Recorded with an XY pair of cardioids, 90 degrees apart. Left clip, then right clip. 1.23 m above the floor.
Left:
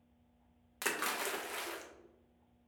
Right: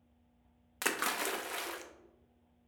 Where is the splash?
30° right, 0.5 m.